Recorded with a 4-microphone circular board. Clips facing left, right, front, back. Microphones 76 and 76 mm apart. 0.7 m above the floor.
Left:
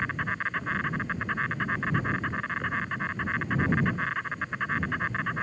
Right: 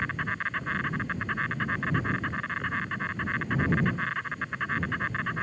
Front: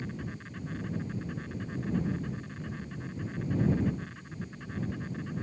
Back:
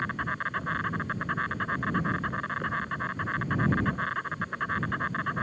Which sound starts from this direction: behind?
An insect, at 0.0 s.